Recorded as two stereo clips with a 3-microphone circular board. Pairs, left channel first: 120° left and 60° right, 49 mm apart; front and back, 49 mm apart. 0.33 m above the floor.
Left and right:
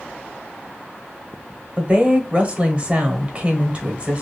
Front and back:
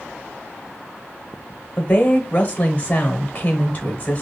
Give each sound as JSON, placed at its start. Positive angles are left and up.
{"t": 1.8, "sound": "a woman speaking", "azimuth_deg": -20, "distance_m": 1.0}